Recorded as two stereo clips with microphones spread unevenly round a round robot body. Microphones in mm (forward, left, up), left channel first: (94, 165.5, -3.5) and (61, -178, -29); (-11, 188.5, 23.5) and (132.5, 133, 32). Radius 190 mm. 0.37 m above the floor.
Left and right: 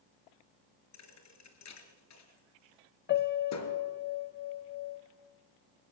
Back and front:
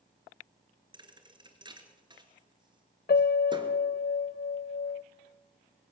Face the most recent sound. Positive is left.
turn(degrees=150)